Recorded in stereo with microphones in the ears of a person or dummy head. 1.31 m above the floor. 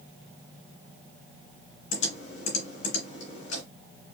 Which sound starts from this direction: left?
Typing on a keyboard, at 1.9 s.